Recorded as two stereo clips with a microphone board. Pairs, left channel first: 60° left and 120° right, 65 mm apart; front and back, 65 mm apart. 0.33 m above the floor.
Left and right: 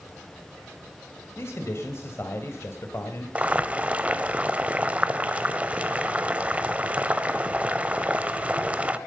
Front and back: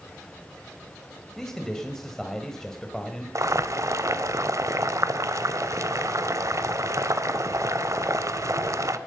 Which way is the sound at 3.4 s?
175° left.